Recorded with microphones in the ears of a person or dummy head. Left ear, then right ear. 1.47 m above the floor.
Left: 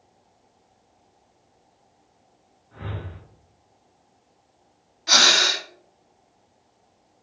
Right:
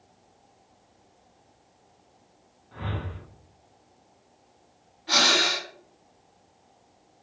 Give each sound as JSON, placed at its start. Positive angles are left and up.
{"t": 2.7, "sound": "a whoosh", "side_deg": -15, "distance_m": 0.9}
{"t": 5.1, "sound": "breathing", "side_deg": 70, "distance_m": 0.7}